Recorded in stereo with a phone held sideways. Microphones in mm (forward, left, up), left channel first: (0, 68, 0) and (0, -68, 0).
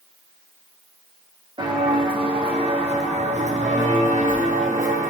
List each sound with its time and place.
1.6 s footsteps: 35° right (ahead or behind), 4.5 m; by 5.1 s 60° right (ahead or behind), 3 m